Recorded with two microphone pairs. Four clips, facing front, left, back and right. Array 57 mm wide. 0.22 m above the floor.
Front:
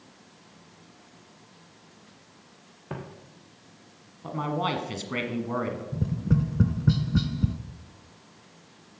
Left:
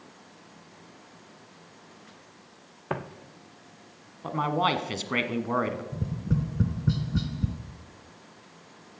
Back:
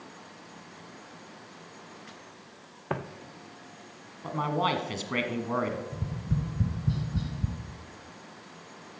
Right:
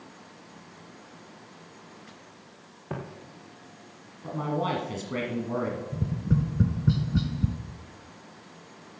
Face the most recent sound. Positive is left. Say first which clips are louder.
# right 2 dB, front 7 dB
turn(degrees=-15)